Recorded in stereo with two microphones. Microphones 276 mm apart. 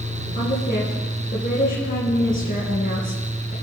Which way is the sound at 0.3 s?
35° left (ahead or behind).